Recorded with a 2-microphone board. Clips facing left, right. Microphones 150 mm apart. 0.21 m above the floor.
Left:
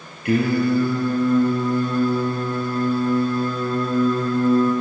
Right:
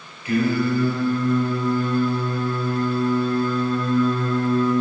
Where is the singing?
60° left (ahead or behind), 3.5 m.